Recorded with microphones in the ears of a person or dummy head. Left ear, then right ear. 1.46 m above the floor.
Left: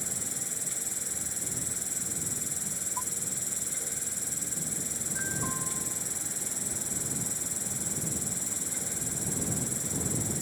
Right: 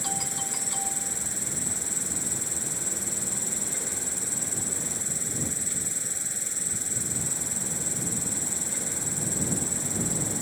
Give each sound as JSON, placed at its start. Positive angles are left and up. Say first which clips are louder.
{"t": 0.0, "sound": "an insect", "louder": "right 5 dB", "side_deg": -10}